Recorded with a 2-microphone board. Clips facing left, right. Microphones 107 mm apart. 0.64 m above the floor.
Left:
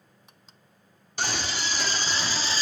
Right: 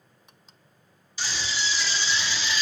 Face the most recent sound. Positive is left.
turn(degrees=35)  # may be behind; listen again after turning